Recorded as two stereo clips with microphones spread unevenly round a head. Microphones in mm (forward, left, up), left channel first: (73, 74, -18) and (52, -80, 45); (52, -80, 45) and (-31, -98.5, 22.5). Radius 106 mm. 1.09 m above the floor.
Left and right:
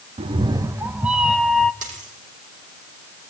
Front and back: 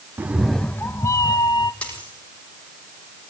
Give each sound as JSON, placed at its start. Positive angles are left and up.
{"t": 0.2, "sound": "a cat meowing", "azimuth_deg": -90, "distance_m": 0.5}
{"t": 1.8, "sound": "a dropped coin", "azimuth_deg": -65, "distance_m": 8.5}